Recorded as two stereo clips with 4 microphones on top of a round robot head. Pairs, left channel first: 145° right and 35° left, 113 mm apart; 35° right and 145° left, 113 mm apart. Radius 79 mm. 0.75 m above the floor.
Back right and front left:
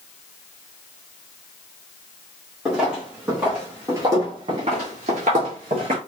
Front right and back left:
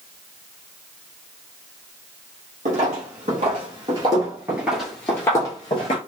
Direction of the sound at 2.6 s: 120° left.